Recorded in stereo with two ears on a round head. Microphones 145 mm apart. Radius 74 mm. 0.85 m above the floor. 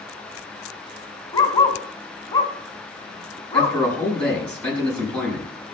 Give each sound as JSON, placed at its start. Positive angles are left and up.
{"t": 1.3, "sound": "a dog barking", "side_deg": 25, "distance_m": 1.8}
{"t": 3.5, "sound": "a man speaking", "side_deg": 5, "distance_m": 6.0}